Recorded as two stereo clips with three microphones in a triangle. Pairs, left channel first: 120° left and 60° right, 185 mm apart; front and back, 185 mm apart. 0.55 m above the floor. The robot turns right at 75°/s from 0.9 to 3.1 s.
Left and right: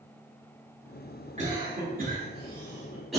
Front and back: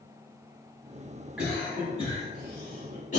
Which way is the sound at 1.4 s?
100° right.